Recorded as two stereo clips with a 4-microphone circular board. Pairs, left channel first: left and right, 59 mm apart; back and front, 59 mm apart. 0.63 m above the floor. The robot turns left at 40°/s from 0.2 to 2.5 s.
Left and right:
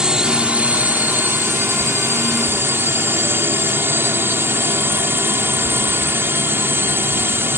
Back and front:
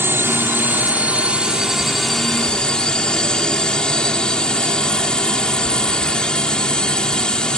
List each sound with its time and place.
0.0 s a drone: 20° right; by 7.6 s 110° right